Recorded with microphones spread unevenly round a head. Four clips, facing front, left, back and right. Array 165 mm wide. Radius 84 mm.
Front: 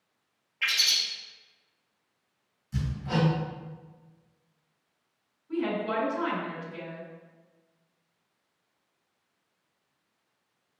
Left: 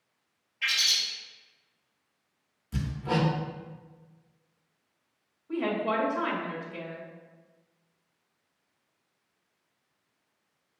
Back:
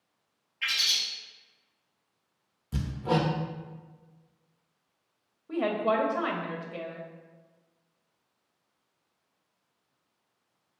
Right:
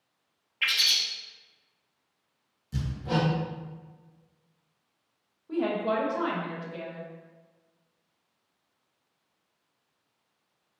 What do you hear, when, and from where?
0.6 s a bird: 35° right, 0.6 m
2.7 s hammering: 175° left, 0.6 m
5.5 s a woman speaking: 160° right, 0.9 m